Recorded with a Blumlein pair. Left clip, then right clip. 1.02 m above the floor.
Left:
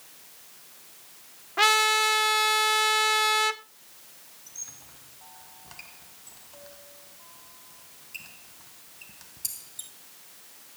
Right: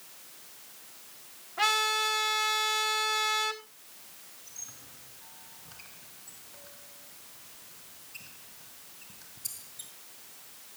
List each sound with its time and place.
1.6 s a trumpet: 55° left, 1.9 m
4.5 s a squeak: 55° left, 2.5 m